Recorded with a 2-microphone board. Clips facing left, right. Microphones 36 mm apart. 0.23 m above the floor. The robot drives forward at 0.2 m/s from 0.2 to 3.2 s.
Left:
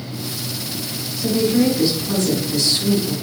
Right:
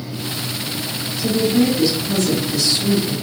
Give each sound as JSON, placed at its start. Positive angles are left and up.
{"t": 1.2, "sound": "a woman speaking", "side_deg": 30, "distance_m": 1.7}